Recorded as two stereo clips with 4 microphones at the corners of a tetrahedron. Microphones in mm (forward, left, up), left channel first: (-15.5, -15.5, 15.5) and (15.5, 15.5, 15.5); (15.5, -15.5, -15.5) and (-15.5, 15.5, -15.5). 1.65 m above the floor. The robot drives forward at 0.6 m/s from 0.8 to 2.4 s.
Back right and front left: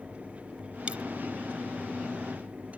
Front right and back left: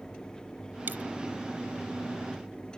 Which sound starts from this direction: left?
A dropped coin, at 0.9 s.